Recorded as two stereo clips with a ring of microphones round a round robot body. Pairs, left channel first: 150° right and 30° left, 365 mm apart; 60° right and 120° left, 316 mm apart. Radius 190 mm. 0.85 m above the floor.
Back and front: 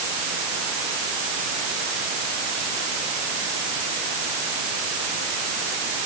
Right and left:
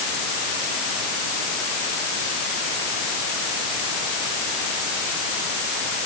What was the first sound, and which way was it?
Only background noise.